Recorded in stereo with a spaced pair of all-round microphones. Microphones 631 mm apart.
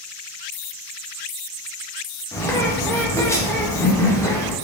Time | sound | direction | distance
2.3 | a bird | 5° left (ahead or behind) | 0.6 m